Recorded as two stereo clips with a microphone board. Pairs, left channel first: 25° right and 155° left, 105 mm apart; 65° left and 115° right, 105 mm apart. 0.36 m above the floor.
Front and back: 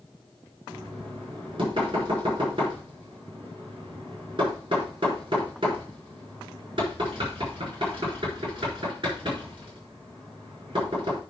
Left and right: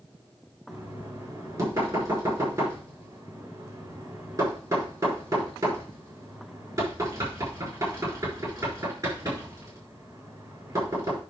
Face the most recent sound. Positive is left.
turn(degrees=-165)